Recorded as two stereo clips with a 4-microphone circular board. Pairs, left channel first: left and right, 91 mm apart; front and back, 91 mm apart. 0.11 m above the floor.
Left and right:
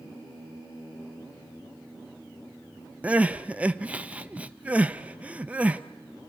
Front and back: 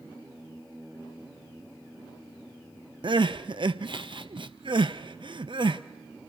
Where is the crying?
165° right, 0.7 m.